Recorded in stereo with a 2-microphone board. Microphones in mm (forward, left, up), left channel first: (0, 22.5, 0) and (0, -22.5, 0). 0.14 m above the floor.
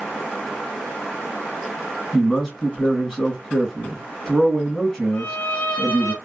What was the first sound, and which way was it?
A man speaking, 10° left (ahead or behind).